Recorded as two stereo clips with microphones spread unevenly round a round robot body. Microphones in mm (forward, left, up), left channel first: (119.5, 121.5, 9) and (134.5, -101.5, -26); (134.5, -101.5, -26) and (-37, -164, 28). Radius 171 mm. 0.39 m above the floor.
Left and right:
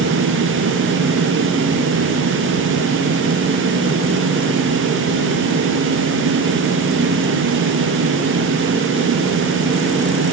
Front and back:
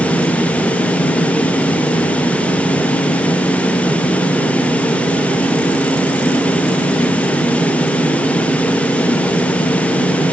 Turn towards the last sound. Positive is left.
No sound to turn to.